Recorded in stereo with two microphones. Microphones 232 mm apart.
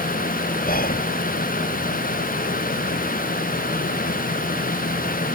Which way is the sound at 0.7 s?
40° left (ahead or behind).